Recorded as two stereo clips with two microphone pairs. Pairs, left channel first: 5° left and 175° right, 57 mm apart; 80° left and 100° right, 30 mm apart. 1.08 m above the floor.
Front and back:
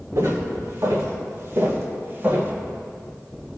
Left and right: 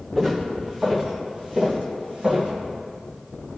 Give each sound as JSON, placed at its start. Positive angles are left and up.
{"t": 0.1, "sound": "footsteps", "azimuth_deg": -160, "distance_m": 4.0}